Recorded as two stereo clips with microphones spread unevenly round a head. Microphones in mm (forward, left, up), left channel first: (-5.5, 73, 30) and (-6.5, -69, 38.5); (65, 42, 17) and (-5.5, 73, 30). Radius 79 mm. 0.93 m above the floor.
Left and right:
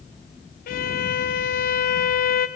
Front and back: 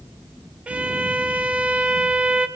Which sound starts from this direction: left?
A violin, at 0.7 s.